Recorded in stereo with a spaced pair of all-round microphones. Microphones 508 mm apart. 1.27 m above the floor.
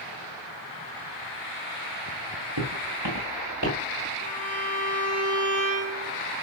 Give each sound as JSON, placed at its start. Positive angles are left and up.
{"t": 2.6, "sound": "footsteps", "side_deg": -40, "distance_m": 7.5}
{"t": 4.2, "sound": "a violin", "side_deg": -25, "distance_m": 3.5}